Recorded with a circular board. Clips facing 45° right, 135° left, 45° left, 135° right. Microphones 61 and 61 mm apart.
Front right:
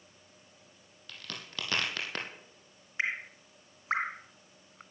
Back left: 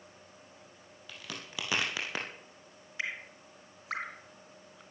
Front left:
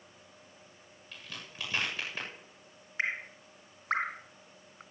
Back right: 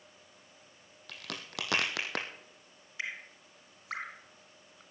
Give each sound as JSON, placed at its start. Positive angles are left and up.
{"t": 1.1, "sound": "a crack", "azimuth_deg": -145, "distance_m": 3.5}
{"t": 3.0, "sound": "dripping", "azimuth_deg": 5, "distance_m": 0.7}